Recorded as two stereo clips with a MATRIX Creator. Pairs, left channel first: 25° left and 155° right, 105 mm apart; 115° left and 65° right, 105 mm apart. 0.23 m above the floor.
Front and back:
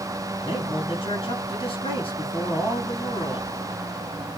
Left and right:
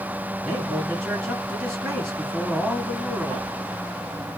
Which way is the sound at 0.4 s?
25° left.